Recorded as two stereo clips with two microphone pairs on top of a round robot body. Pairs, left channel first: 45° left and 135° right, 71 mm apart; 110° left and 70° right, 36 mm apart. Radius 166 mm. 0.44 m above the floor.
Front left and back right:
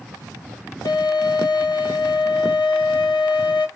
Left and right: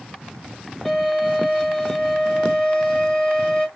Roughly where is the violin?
Ahead left.